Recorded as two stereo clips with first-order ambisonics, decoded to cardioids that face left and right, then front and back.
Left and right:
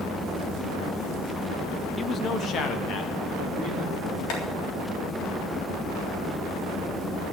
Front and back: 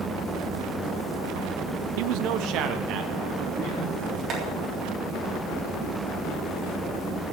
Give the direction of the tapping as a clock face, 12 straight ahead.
8 o'clock.